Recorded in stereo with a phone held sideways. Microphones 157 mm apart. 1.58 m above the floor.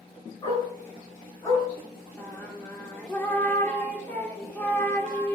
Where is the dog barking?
25° left (ahead or behind), 8 m; by 1.6 s 20° left (ahead or behind), 8.5 m.